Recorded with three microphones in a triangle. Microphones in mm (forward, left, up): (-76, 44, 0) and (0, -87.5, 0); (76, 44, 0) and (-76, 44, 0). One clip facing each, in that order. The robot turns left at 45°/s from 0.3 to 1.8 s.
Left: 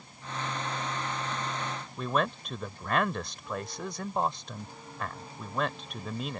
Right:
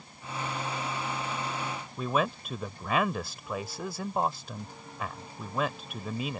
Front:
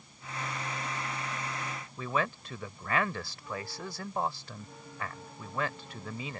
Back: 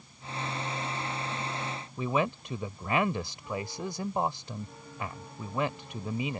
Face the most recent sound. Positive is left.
turn(degrees=-140)